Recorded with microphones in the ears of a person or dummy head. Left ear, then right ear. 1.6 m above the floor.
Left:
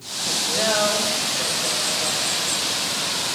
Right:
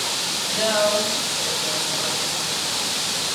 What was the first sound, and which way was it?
A woman speaking, 5° left (ahead or behind).